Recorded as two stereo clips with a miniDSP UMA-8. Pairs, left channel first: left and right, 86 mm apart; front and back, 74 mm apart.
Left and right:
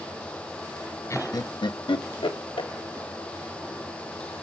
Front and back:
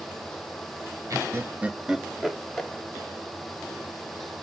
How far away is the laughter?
About 0.5 m.